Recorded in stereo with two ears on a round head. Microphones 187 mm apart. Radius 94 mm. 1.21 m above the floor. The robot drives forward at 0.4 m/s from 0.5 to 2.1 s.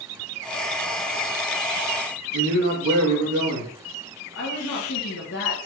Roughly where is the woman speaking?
Left.